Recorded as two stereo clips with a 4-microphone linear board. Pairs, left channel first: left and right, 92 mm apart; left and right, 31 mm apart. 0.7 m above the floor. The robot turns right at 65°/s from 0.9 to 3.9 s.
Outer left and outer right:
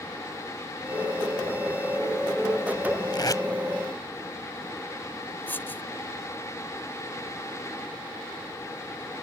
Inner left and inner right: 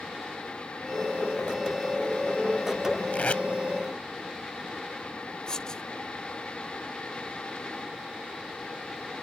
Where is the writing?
20° left (ahead or behind).